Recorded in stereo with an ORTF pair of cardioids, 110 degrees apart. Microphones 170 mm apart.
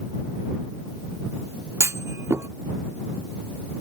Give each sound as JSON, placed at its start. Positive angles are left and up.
{"t": 1.8, "sound": "a clunk", "azimuth_deg": -15}